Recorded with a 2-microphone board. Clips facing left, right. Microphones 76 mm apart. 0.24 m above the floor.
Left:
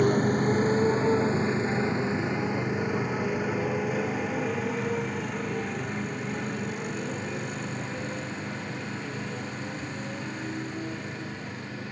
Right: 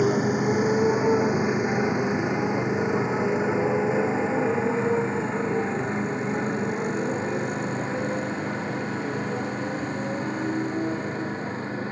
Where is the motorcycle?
5° right (ahead or behind); by 11.9 s 35° right (ahead or behind).